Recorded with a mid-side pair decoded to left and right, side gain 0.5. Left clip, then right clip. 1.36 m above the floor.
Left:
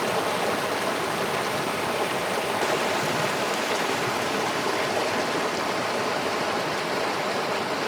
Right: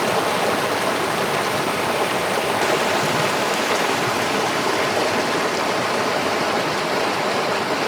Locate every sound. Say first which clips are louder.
0.0 s running water: right 5 dB; 35° right, 1.3 m